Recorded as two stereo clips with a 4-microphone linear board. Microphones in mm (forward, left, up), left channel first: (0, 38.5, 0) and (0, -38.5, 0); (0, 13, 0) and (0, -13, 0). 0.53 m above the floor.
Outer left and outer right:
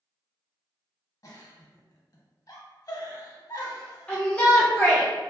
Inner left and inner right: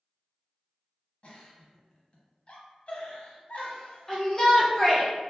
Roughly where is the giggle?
Left.